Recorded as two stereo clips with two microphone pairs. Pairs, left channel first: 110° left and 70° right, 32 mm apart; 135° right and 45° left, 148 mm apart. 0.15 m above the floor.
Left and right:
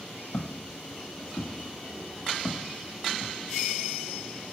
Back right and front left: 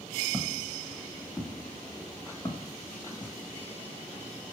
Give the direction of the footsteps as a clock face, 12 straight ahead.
8 o'clock.